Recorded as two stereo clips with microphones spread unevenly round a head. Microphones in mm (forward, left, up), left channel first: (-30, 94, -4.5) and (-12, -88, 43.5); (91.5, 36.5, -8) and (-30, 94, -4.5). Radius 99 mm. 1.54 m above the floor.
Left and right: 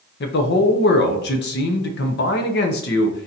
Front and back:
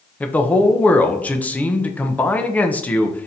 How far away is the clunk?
No clunk in this recording.